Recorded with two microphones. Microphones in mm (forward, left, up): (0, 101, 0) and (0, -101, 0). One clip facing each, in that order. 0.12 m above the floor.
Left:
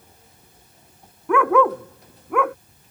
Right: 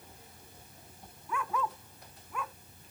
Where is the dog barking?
75° left (ahead or behind).